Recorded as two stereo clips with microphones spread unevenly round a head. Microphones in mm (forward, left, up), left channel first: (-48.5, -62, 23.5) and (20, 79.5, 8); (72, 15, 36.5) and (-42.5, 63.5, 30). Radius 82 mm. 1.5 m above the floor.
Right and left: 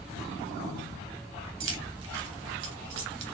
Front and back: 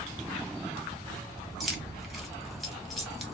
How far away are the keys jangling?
About 1.3 m.